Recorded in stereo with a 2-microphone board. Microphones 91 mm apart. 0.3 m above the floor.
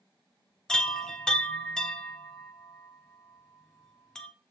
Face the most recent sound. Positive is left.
turn(degrees=10)  # may be behind; listen again after turning